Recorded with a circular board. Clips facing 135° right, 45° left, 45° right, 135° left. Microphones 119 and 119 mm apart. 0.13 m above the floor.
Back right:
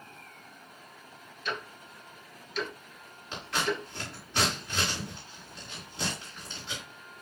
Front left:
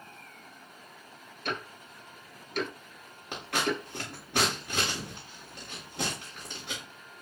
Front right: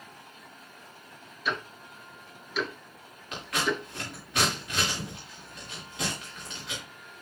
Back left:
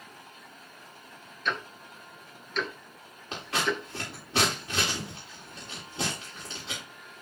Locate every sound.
1.4 s ticking: 35° left, 1.4 m
3.3 s scissors: 75° left, 7.5 m